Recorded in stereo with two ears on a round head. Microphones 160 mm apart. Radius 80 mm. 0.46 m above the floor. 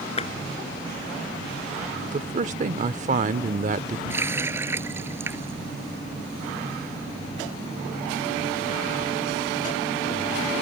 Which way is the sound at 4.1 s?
15° right (ahead or behind).